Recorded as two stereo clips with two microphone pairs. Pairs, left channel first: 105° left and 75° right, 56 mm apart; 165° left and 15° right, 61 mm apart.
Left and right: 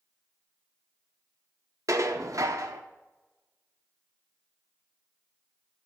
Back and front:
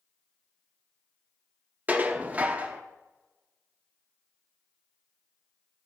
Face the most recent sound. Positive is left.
turn(degrees=-75)